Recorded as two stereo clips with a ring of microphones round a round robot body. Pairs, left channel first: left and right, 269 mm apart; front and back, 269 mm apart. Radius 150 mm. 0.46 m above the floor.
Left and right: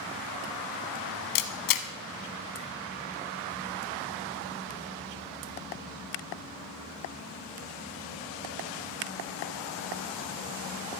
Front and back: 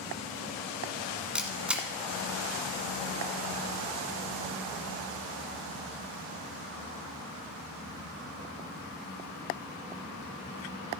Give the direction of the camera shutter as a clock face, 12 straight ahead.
9 o'clock.